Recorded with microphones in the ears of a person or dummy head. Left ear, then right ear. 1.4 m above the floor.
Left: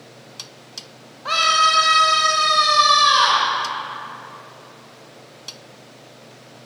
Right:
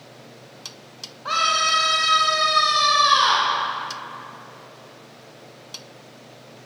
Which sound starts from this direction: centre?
A scream, at 1.2 s.